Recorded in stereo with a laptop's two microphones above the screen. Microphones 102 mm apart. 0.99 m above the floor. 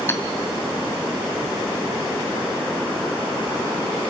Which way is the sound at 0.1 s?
25° left (ahead or behind).